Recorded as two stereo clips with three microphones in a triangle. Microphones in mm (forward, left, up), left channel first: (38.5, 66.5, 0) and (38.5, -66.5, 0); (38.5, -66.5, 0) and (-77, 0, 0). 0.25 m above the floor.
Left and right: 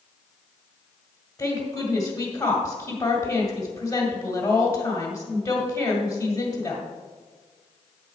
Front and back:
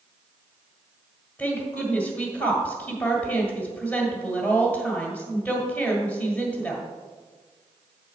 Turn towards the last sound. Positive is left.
turn(degrees=45)